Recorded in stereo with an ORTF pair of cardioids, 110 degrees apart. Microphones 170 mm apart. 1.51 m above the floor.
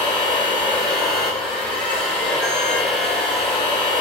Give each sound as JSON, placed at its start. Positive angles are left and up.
{"t": 0.0, "sound": "a machine running", "azimuth_deg": 5, "distance_m": 1.5}